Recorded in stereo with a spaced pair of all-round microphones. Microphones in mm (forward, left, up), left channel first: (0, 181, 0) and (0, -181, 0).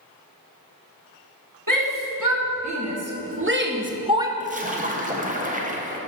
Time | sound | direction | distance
1.7 | a shout | 60° right (ahead or behind) | 2.0 m
4.4 | a splash | 20° right (ahead or behind) | 1.2 m